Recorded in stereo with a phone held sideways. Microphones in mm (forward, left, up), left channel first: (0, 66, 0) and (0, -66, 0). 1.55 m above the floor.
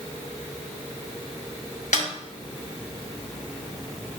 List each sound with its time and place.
1.9 s a snare drum: 70° left (ahead or behind), 1.6 m